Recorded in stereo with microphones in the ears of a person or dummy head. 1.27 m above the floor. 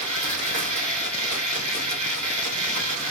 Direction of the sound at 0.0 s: 70° right (ahead or behind).